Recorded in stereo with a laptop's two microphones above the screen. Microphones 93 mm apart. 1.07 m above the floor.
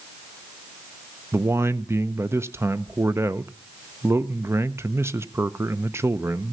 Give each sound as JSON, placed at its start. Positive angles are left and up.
{"t": 1.3, "sound": "a man speaking", "side_deg": -25, "distance_m": 0.7}